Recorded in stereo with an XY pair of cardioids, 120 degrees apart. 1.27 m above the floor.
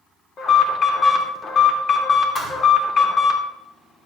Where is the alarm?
45° left, 2.5 m.